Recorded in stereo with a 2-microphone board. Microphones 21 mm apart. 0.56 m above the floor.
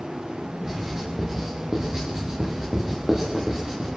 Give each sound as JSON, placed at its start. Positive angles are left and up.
{"t": 0.6, "sound": "writing", "side_deg": -30, "distance_m": 10.0}